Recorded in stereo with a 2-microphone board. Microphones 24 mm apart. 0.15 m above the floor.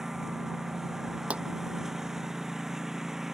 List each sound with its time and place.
0.0 s a lawn mower: 20° right (ahead or behind)
1.3 s a pop: 75° right (ahead or behind)